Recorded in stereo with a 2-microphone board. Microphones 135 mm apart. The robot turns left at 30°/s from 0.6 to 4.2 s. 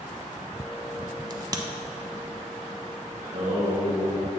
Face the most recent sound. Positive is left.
turn(degrees=-60)  # may be behind; listen again after turning